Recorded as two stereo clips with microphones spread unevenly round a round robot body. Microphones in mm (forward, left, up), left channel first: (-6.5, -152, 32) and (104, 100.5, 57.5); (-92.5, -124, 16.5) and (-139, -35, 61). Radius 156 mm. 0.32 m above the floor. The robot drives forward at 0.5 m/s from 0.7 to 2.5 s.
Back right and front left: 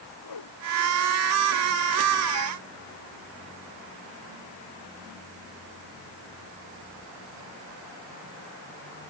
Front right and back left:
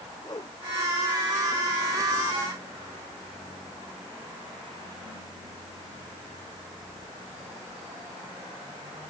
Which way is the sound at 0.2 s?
110° right.